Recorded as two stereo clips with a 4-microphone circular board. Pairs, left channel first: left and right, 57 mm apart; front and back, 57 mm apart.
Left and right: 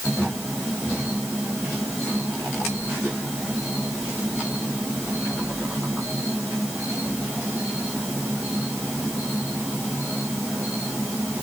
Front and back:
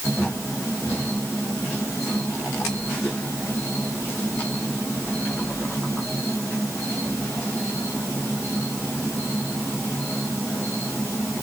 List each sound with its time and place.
Only background noise.